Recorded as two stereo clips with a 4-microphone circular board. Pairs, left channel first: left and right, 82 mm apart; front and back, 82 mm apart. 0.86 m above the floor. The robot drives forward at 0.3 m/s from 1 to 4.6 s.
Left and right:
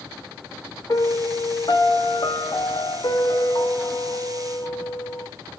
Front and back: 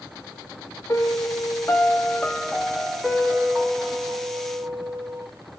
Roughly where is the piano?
Ahead left.